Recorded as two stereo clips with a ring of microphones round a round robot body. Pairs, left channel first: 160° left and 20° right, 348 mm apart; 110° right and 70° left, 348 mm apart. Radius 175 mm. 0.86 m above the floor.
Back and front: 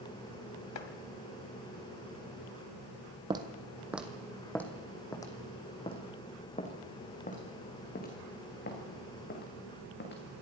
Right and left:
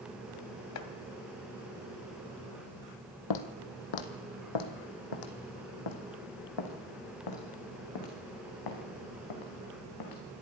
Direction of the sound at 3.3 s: 100° right.